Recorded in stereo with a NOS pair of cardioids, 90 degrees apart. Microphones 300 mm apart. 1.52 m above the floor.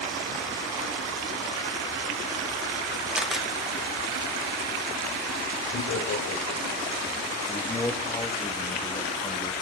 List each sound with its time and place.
3.1 s a camera shutter: straight ahead, 1.7 m
5.7 s laughter: 60° left, 7.5 m
7.5 s a man speaking: 15° left, 2.0 m